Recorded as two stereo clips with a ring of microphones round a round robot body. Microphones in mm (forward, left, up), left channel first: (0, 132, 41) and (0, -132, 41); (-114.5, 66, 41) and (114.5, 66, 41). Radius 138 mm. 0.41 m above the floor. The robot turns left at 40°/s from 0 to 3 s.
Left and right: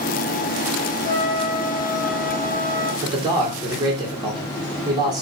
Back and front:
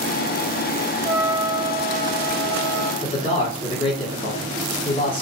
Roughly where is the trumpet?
Left.